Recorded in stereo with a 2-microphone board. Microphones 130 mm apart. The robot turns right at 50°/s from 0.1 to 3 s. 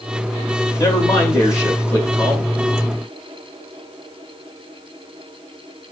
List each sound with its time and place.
0.8 s a man speaking: 25° left (ahead or behind), 1.6 m; by 2.5 s 10° left (ahead or behind), 1.6 m